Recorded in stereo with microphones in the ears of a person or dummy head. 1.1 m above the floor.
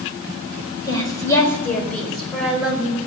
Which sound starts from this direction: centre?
A woman speaking, at 0.9 s.